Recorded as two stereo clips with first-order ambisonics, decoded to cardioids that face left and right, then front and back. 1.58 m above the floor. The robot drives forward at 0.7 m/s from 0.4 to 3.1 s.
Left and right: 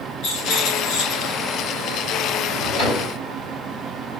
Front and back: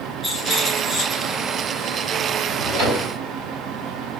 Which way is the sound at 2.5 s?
130° left.